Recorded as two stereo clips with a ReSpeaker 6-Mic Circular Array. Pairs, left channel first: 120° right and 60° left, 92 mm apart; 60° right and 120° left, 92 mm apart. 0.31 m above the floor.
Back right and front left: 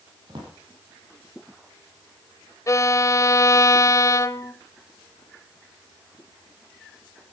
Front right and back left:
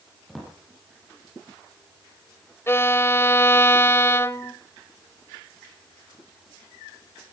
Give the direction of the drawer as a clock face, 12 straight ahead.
11 o'clock.